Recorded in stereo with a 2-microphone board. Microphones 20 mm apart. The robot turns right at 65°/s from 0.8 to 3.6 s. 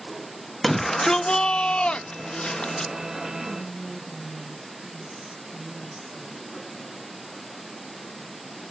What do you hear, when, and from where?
0.6 s a shout: 10° left, 0.5 m; by 2.9 s 145° left, 0.5 m
3.4 s whispering: 60° right (ahead or behind), 0.6 m; by 6.5 s 45° right (ahead or behind), 0.6 m